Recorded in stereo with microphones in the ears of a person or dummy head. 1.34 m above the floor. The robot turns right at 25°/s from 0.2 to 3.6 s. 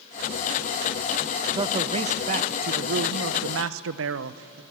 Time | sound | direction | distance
1.5 | a man speaking | 160° right | 0.7 m